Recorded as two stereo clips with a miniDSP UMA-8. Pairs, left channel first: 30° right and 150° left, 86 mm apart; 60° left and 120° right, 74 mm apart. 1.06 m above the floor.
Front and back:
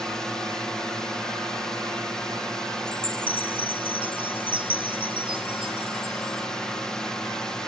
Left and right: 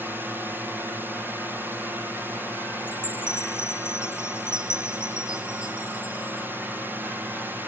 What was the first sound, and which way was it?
A drone, 105° right.